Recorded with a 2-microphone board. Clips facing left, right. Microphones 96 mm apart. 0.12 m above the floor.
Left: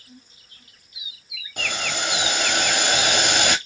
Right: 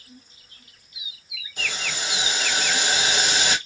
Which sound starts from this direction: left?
Boiling, at 1.6 s.